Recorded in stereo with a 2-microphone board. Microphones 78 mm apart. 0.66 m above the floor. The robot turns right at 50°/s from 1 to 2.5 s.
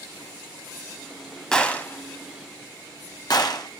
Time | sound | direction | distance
1.5 | a gunshot | 10° left (ahead or behind) | 1.1 m